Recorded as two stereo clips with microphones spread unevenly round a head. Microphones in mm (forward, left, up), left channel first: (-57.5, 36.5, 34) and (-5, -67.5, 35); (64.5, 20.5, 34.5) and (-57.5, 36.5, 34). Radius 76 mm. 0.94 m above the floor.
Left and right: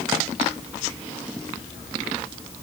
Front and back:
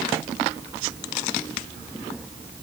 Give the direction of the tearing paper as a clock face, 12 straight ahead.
No tearing paper in this recording.